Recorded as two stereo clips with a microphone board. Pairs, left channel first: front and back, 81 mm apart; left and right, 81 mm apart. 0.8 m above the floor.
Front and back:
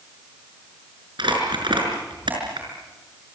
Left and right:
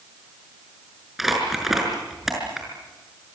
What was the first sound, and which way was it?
Crumpling, straight behind.